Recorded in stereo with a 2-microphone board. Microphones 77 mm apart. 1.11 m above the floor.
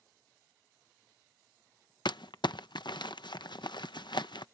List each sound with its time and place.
2.0 s crumpling: 75° left (ahead or behind)